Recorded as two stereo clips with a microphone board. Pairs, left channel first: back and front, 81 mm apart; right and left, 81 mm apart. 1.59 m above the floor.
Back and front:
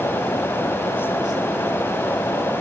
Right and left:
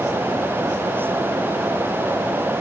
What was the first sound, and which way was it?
Only background noise.